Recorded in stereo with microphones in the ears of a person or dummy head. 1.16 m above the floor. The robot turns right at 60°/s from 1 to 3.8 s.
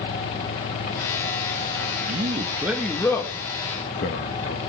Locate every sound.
2.1 s a man speaking: 45° right, 1.6 m; by 4.6 s 55° left, 1.6 m